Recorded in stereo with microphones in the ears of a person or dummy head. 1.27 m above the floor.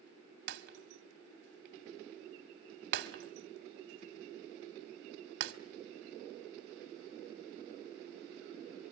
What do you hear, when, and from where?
0.5 s breaking glass: 60° right (ahead or behind), 1.2 m